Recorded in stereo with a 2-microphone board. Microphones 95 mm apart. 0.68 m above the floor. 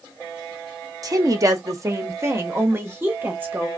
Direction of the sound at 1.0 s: 40° right (ahead or behind).